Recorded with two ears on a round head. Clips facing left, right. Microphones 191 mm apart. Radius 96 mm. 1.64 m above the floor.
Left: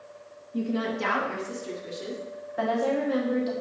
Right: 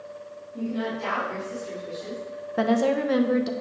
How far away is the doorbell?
I don't hear a doorbell.